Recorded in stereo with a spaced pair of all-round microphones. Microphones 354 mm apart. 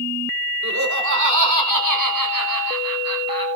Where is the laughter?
50° right (ahead or behind), 4.5 m; by 3.5 s 75° right (ahead or behind), 6.5 m.